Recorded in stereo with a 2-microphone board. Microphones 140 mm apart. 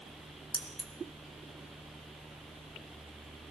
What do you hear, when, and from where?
0.5 s keys jangling: 40° left (ahead or behind), 2 m